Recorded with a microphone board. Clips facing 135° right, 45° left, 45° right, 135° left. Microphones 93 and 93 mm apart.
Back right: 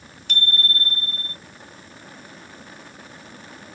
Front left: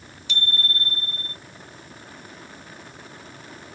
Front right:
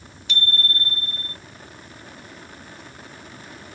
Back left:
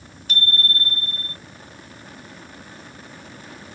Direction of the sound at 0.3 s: 175° right.